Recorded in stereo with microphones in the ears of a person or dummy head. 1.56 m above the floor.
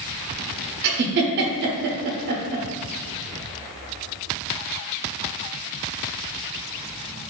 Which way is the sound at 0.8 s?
60° right (ahead or behind).